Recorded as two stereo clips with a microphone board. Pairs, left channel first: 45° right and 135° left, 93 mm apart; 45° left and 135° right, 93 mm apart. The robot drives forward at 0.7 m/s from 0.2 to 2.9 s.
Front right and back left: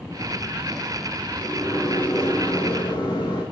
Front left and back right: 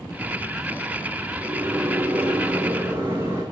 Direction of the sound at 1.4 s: 65° right.